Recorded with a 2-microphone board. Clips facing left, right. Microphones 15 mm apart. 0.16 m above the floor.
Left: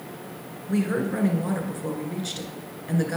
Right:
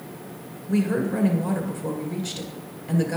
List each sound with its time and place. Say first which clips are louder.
0.7 s a woman speaking: right 2 dB; 20° left (ahead or behind), 1.8 m